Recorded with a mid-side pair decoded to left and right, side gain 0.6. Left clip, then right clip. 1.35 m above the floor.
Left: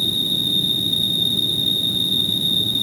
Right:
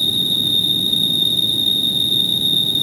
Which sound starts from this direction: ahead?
An insect, at 0.0 s.